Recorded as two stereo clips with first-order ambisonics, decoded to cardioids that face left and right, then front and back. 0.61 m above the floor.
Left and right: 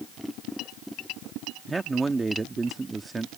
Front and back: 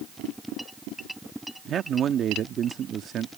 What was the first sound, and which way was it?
A man speaking, 160° right.